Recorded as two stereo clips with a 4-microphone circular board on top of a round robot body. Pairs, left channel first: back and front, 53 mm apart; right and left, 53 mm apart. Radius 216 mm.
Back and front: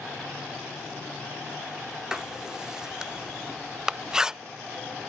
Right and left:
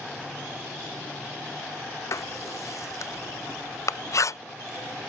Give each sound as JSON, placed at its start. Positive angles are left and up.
{"t": 2.1, "sound": "writing", "azimuth_deg": -75}